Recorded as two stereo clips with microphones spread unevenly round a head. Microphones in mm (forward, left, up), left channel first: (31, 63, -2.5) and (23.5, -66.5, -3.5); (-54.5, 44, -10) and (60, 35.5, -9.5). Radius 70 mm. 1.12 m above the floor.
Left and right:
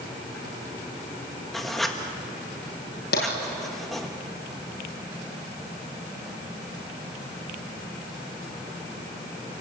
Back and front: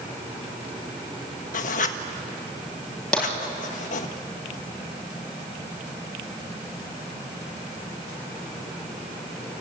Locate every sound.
1.5 s writing: 175° left, 1.5 m
3.1 s tapping: 95° left, 7.5 m